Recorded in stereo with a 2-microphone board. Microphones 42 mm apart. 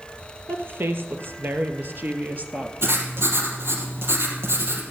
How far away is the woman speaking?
About 2.5 m.